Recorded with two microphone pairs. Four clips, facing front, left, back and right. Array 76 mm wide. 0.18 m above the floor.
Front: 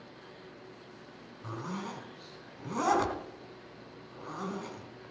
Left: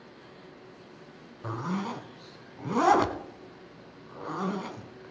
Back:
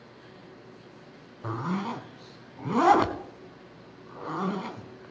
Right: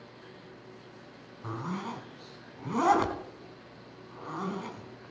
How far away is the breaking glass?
No breaking glass in this recording.